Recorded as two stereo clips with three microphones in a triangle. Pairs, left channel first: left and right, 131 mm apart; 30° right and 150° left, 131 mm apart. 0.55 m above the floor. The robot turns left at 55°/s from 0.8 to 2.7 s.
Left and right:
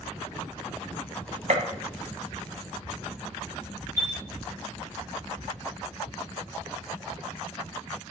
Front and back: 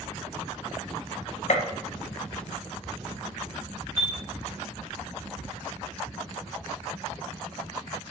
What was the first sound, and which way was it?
A gunshot, 60° right.